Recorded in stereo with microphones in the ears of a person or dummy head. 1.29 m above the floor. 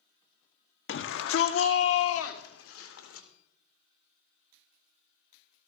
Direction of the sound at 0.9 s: 55° left (ahead or behind).